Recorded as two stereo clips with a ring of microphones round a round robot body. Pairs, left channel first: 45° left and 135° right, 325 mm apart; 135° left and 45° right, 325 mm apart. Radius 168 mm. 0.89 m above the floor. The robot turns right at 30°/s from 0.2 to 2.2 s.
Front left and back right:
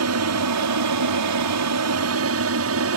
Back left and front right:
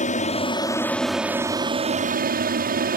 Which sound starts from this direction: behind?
An aircraft, at 0.0 s.